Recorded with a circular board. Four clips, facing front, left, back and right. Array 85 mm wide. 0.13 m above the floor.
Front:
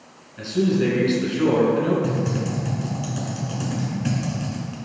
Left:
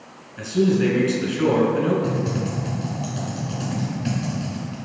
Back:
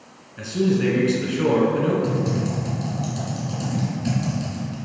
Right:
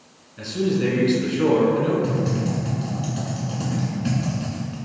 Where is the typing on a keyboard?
5° right, 1.4 m.